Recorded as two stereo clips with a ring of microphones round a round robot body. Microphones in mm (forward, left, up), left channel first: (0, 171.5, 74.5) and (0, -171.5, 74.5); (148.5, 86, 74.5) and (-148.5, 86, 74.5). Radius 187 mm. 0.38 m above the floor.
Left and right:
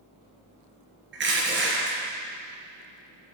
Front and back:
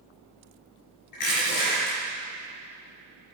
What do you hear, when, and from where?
1.1 s crushing: 30° right, 4 m